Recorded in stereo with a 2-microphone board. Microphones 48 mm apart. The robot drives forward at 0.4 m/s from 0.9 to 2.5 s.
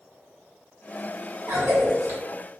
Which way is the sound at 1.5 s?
60° right (ahead or behind).